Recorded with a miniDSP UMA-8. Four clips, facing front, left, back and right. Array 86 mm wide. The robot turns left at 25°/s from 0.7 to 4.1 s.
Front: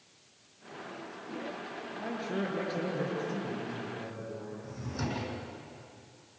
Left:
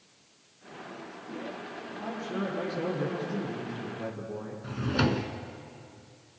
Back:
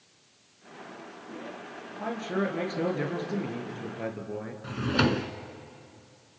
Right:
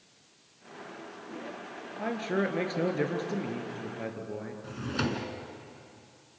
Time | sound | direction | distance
2.0 | a man speaking | 100° right | 4 m
4.6 | a drawer | 170° left | 1.4 m